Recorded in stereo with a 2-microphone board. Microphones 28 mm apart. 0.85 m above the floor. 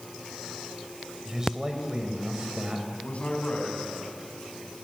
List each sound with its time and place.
1.2 s a man speaking: 20° right (ahead or behind), 4 m; by 2.9 s 40° right (ahead or behind), 4 m
3.0 s a man speaking: 50° left (ahead or behind), 7 m